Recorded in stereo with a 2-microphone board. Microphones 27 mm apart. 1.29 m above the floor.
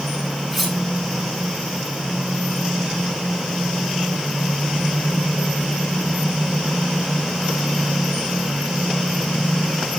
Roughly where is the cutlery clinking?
Centre.